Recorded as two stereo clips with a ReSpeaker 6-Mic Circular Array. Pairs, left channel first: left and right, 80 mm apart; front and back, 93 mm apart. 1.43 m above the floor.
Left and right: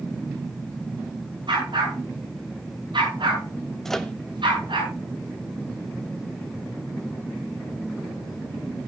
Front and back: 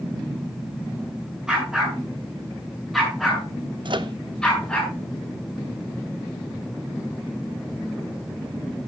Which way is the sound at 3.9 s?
175° left.